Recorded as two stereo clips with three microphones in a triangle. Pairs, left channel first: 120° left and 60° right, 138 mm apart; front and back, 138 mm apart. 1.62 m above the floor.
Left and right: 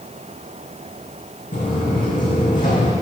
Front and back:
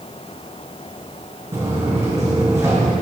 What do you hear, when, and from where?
1.5 s footsteps: 115° left, 4.5 m